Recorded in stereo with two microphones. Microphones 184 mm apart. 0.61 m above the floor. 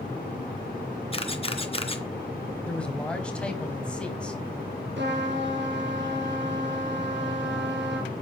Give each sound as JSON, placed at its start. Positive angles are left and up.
{"t": 1.1, "sound": "a camera shutter", "side_deg": 30, "distance_m": 1.8}
{"t": 2.7, "sound": "a man speaking", "side_deg": 5, "distance_m": 3.0}
{"t": 5.0, "sound": "a trumpet", "side_deg": -75, "distance_m": 3.5}